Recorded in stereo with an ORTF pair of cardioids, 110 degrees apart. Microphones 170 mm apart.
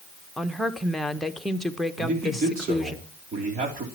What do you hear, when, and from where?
0.4 s a woman speaking: straight ahead, 1.2 m
2.0 s a man speaking: 55° right, 3.5 m